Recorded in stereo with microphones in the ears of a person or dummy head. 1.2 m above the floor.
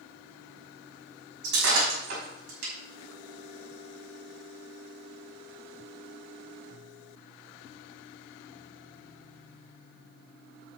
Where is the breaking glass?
70° right (ahead or behind), 5.5 m.